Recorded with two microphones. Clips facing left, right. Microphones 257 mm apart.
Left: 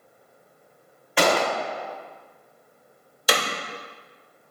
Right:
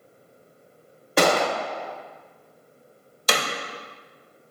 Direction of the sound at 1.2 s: 50° right (ahead or behind).